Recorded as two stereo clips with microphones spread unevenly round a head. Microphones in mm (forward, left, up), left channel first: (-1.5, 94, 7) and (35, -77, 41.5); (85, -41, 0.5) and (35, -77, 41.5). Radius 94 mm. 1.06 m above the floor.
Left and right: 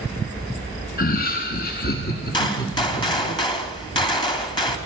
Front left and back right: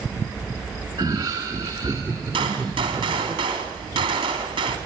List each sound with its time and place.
1.0 s laughter: 145° left, 0.9 m; by 3.3 s 140° left, 3.5 m
2.3 s a gunshot: 165° left, 3 m